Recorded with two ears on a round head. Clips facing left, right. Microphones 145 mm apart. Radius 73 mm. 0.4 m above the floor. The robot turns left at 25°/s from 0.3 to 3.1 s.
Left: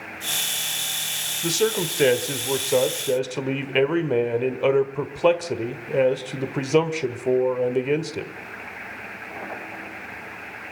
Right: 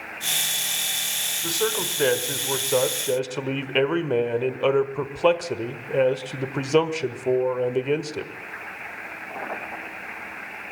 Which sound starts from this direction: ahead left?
A man speaking, at 1.4 s.